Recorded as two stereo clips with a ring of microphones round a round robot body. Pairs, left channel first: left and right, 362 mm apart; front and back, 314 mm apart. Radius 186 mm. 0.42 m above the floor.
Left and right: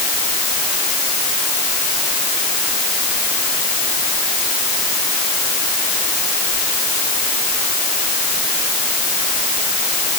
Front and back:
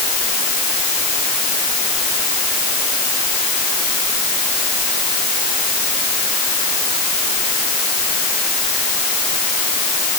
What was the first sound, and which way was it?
Only background noise.